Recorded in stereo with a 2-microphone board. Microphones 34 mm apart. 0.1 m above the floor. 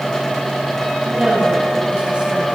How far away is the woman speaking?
About 7 m.